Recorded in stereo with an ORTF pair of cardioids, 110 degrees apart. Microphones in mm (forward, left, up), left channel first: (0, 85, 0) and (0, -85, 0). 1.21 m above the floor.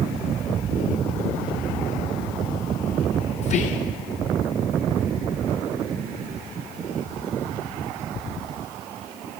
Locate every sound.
3.4 s whispering: 45° left, 0.7 m